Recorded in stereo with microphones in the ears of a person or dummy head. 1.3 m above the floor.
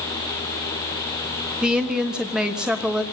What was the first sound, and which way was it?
A woman speaking, centre (ahead or behind).